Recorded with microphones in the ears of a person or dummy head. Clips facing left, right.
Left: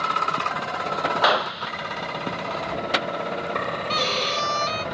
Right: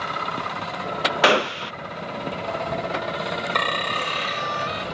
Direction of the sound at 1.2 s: 35° right (ahead or behind).